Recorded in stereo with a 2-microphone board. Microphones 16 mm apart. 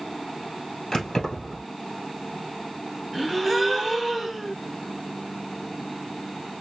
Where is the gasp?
Centre (ahead or behind), 1.2 m.